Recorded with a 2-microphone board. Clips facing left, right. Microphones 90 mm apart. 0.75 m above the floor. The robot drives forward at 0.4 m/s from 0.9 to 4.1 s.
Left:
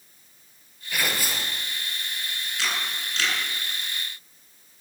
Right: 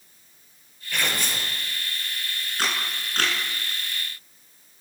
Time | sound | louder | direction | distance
0.9 | tearing paper | even | 5° left (ahead or behind) | 4 m
2.6 | a camera shutter | right 2 dB | 45° right (ahead or behind) | 9 m